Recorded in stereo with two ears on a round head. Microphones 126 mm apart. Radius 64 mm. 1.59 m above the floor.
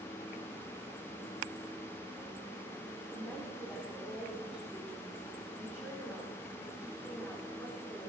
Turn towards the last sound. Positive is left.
turn(degrees=10)  # may be behind; listen again after turning